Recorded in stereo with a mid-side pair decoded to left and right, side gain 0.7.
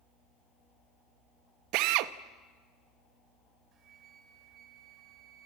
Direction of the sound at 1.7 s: 65° right.